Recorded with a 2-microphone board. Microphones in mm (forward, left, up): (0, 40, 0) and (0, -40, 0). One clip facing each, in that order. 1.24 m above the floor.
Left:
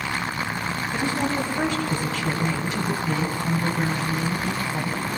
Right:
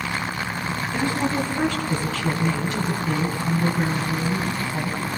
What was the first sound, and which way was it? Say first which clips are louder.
A woman speaking: right 2 dB; 15° left (ahead or behind).